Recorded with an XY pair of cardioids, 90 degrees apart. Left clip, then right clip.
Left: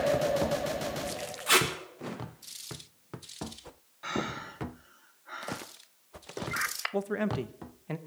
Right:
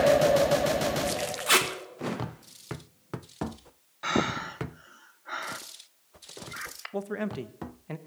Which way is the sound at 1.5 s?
25° right.